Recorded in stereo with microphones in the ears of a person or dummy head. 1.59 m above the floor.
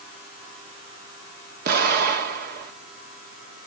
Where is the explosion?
55° right (ahead or behind), 1.9 m.